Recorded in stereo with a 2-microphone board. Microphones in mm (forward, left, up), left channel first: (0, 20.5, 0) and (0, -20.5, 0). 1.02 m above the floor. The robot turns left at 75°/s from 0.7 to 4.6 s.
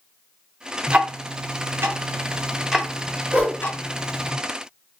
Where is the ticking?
25° right (ahead or behind), 0.5 m; by 4.3 s 70° left (ahead or behind), 0.5 m.